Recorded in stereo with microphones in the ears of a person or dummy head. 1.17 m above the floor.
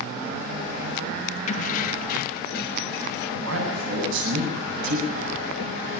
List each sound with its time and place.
1.5 s keys jangling: 40° left (ahead or behind), 0.6 m; by 3.3 s 60° left (ahead or behind), 1.6 m
3.4 s a man speaking: 85° right, 8.5 m